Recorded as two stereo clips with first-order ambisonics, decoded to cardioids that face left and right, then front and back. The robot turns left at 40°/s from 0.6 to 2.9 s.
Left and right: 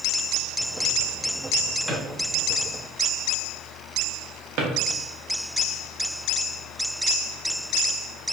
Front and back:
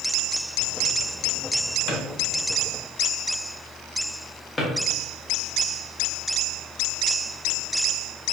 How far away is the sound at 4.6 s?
About 0.5 m.